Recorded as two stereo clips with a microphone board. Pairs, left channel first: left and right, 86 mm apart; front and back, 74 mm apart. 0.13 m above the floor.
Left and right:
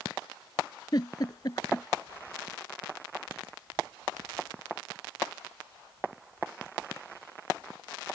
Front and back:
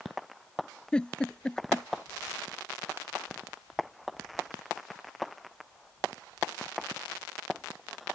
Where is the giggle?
75° left.